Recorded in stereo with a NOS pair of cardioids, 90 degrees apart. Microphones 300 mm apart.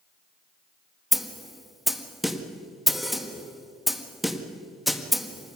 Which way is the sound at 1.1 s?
Straight ahead.